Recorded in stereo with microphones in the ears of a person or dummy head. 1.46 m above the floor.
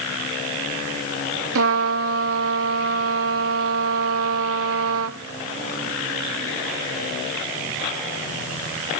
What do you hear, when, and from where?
1.6 s a trumpet: 80° right, 0.8 m